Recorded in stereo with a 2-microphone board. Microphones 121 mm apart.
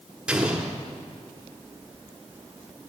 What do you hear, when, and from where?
0.3 s an explosion: 10° right (ahead or behind), 1.4 m